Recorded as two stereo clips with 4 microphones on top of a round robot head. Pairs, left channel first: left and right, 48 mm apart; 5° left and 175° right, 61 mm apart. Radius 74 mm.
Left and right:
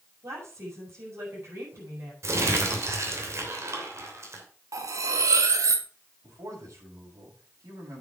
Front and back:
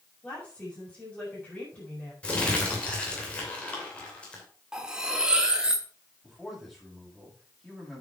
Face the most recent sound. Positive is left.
turn(degrees=-85)